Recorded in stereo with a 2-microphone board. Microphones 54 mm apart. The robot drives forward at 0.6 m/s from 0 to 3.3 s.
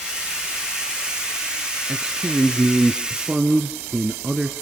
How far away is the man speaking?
About 1.3 m.